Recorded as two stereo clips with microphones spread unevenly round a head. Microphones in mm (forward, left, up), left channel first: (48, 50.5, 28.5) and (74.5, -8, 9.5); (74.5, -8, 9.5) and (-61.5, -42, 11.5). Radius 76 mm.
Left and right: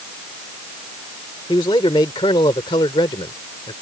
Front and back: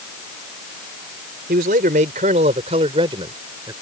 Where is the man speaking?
155° left; by 3.7 s 125° left.